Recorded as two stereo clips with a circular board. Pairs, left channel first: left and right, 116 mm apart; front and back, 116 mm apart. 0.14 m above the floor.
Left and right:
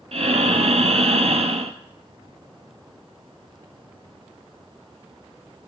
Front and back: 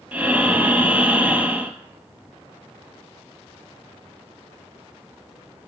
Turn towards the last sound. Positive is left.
turn(degrees=-105)